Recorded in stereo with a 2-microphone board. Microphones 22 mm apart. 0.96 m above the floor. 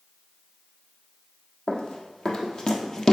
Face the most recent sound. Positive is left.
turn(degrees=25)  # may be behind; listen again after turning